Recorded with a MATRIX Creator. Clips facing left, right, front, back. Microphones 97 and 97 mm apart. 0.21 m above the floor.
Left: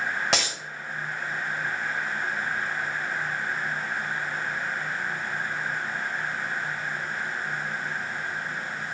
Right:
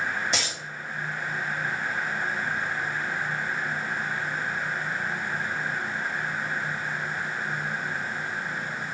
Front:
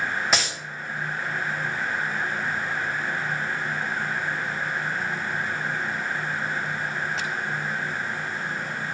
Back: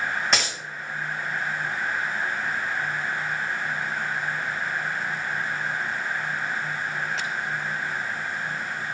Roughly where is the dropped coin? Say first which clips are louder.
Left 3 dB, even; left.